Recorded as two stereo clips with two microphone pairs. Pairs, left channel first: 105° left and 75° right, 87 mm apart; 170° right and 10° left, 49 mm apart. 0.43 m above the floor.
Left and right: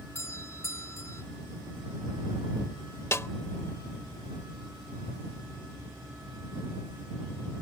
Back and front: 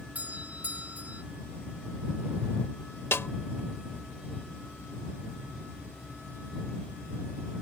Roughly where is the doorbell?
Ahead left.